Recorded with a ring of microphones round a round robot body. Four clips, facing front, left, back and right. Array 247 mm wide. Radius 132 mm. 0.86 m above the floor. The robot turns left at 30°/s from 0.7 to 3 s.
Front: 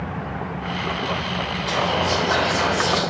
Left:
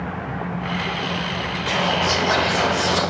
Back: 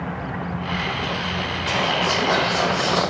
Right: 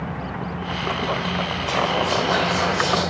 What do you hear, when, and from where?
1.7 s whispering: 105° left, 0.7 m; by 3.0 s 65° left, 0.7 m